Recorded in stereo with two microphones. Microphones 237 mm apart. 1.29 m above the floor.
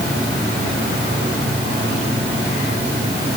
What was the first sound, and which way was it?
Only background noise.